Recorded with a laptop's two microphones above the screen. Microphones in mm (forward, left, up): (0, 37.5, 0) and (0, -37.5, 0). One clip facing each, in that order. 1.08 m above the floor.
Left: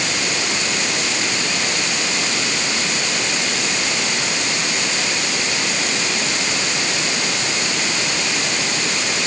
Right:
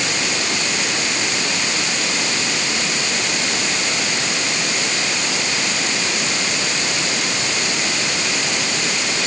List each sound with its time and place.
Only background noise.